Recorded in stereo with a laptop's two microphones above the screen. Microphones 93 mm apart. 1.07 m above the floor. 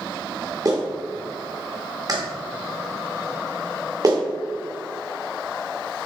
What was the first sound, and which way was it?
A clap, 40° right (ahead or behind).